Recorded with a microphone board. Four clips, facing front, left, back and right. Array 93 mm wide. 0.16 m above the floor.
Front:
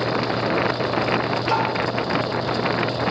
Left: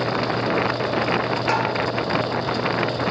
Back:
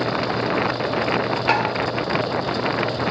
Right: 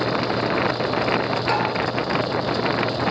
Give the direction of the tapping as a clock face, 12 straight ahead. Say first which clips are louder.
Even, back 2 dB; 7 o'clock.